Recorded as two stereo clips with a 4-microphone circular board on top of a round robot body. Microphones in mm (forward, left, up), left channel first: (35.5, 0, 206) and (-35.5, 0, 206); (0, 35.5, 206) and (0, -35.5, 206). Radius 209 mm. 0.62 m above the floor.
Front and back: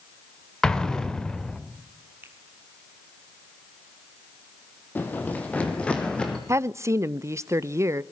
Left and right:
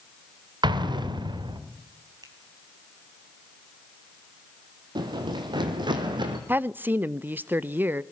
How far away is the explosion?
About 2 m.